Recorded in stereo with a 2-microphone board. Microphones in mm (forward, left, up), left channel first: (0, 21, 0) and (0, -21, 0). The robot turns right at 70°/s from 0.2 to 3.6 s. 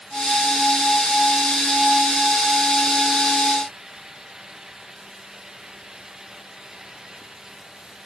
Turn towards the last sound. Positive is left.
No sound to turn to.